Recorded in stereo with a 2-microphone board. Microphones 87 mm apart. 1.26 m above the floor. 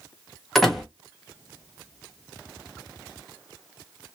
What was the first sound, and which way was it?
A door slam, centre (ahead or behind).